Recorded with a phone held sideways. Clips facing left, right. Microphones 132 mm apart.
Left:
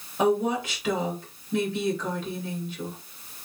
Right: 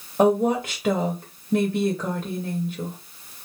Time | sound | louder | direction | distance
0.2 | a woman speaking | right 4 dB | 40° right (ahead or behind) | 0.8 m